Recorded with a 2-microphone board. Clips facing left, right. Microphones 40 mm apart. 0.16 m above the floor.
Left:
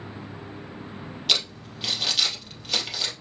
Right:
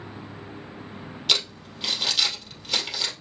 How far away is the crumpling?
About 2.5 m.